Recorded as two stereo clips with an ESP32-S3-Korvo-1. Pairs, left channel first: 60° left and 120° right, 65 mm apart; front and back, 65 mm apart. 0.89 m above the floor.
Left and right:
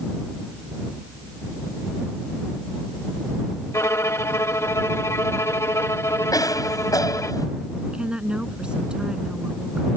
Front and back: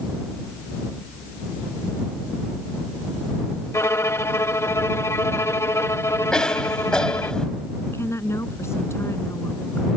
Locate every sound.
3.7 s a violin: 30° left
6.3 s a cough: 80° left
7.9 s a woman speaking: 45° right